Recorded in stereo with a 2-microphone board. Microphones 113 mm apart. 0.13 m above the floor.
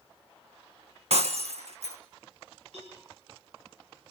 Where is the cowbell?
80° right, 9 m.